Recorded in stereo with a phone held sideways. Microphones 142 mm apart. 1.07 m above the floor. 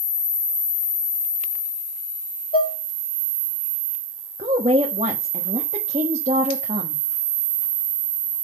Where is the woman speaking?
50° right (ahead or behind), 1.3 m.